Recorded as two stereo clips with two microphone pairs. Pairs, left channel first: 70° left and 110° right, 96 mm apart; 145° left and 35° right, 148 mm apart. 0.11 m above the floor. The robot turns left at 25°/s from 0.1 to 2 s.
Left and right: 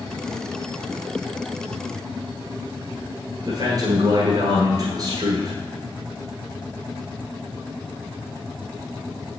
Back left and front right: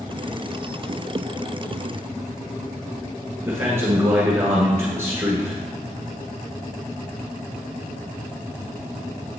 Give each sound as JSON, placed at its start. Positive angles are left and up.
{"t": 3.5, "sound": "a man speaking", "azimuth_deg": -100, "distance_m": 1.4}